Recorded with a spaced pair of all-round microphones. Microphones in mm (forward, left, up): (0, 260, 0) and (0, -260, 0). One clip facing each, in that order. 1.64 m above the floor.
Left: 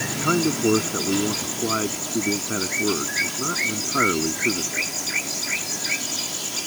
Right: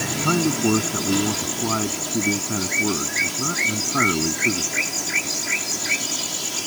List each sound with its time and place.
0.1 s a man speaking: 15° right (ahead or behind)